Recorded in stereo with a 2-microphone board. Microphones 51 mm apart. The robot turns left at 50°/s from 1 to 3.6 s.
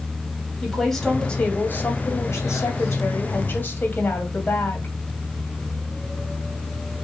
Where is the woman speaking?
175° left, 2.5 m; by 5.0 s 45° left, 2.5 m.